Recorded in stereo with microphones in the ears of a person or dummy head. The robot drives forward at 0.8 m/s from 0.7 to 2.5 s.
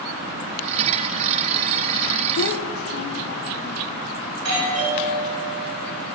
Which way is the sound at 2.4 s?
65° left (ahead or behind).